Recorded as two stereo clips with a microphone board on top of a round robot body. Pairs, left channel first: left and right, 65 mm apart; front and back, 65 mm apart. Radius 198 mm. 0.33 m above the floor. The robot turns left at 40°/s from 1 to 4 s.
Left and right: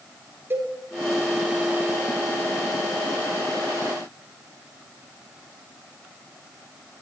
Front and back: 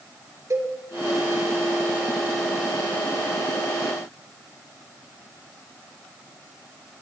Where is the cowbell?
140° right, 7 m.